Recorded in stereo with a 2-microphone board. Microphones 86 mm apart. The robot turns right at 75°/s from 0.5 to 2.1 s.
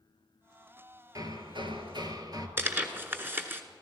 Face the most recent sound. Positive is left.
turn(degrees=-25)  # may be behind; listen again after turning